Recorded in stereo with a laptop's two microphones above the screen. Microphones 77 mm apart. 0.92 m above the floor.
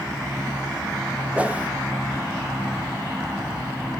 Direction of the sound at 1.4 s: 15° right (ahead or behind).